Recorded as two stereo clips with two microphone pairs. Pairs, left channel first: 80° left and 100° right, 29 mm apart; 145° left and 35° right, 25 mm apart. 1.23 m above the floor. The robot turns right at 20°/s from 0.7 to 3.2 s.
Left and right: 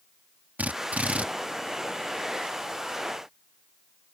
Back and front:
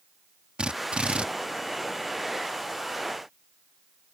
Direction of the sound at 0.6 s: 75° right.